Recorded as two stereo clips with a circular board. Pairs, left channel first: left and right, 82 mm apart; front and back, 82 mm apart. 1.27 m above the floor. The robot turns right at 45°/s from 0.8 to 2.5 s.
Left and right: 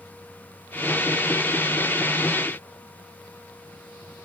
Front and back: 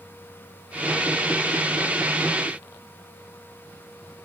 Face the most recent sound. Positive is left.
No sound to turn to.